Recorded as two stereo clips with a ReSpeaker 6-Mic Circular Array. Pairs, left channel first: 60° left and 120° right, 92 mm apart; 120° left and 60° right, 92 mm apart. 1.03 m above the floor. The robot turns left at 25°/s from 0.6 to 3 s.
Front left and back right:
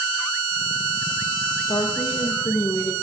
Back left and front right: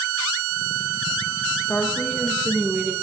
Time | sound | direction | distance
1.7 | a woman speaking | 50° left | 1.0 m